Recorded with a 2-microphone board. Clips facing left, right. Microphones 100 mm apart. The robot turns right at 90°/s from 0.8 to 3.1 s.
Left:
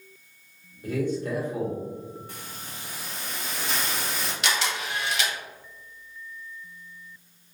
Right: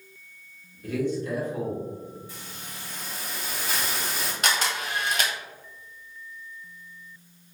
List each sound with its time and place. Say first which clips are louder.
0.8 s a man speaking: even; 30° left, 1.4 m; by 1.8 s 120° left, 1.4 m
2.3 s a hiss: left 1 dB; 110° left, 0.7 m; by 4.3 s straight behind, 0.7 m
4.4 s a camera shutter: right 1 dB; 45° right (ahead or behind), 0.7 m